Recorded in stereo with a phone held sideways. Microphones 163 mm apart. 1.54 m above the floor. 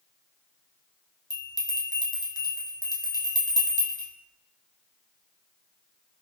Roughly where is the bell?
Left.